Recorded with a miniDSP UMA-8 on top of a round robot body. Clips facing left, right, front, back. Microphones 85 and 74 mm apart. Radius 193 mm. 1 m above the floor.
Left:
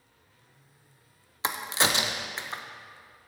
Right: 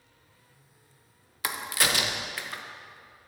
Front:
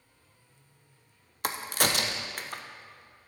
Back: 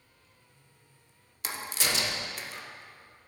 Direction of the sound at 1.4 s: 30° left.